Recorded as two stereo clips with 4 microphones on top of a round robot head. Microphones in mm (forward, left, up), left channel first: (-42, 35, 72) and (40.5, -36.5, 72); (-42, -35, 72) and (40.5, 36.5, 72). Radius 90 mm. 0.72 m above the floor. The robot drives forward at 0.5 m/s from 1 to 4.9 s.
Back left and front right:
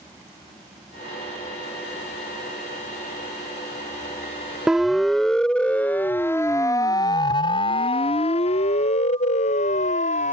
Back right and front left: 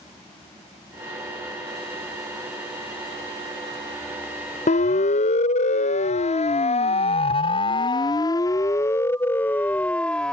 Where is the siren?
125° right; by 10.3 s 140° left.